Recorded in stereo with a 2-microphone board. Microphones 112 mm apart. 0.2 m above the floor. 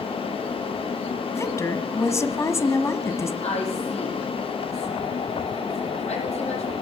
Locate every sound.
1.3 s a woman speaking: 25° left (ahead or behind), 1.3 m
3.4 s a woman speaking: 75° left (ahead or behind), 7.5 m